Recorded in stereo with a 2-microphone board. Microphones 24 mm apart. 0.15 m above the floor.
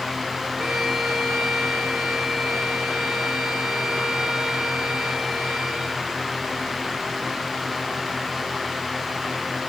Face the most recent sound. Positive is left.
turn(degrees=0)  # may be behind; listen again after turning